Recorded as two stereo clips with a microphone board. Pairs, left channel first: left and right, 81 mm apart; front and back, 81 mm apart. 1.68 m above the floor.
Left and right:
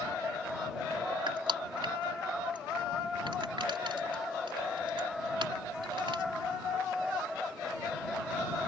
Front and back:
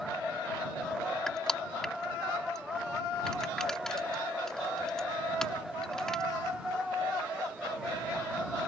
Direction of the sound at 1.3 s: 85° right.